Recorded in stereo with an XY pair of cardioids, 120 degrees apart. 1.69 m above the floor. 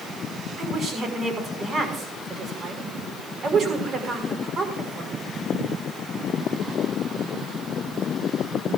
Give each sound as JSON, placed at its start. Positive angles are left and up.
{"t": 0.6, "sound": "a woman speaking", "azimuth_deg": -50, "distance_m": 6.0}